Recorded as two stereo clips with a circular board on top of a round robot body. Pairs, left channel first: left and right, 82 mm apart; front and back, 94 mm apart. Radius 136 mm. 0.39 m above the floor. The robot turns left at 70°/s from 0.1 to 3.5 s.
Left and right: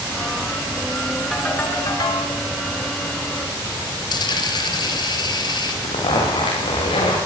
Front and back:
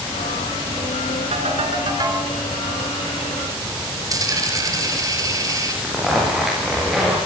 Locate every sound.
1.3 s a ringtone: straight behind, 4 m; by 2.3 s 110° left, 4 m
4.1 s a dropped coin: 125° left, 4 m
5.8 s a zipper: 95° left, 9 m